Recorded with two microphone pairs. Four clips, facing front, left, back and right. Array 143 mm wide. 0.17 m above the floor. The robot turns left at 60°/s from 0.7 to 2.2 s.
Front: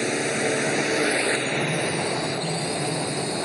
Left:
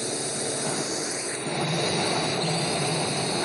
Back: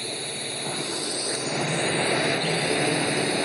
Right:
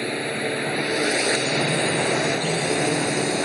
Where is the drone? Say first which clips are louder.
Right 5 dB, front 10 dB; 25° right; by 3.5 s 115° right.